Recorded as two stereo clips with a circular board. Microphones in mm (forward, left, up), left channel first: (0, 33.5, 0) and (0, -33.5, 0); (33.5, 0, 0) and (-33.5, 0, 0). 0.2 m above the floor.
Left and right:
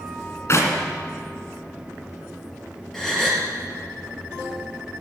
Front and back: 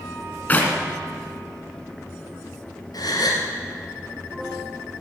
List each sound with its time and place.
0.5 s a clap: 60° left, 2 m
2.9 s a gasp: 5° left, 2.5 m